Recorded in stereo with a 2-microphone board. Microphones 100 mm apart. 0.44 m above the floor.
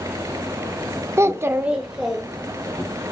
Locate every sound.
1.2 s a child speaking: 30° right (ahead or behind), 0.6 m; by 2.8 s 5° left (ahead or behind), 2 m